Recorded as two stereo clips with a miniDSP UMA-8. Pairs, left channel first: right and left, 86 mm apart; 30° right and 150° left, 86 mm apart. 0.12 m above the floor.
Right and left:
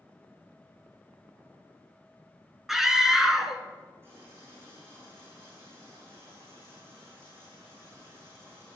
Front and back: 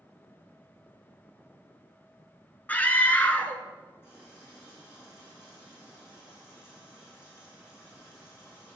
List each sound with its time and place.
2.7 s a scream: 10° left, 1.1 m
4.0 s a running tap: 30° left, 5 m